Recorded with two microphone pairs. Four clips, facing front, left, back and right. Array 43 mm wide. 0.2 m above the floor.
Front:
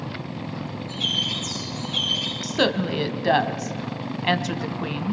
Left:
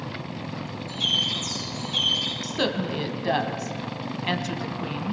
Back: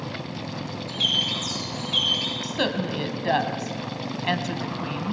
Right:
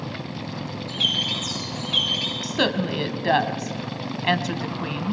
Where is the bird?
130° right, 9 m.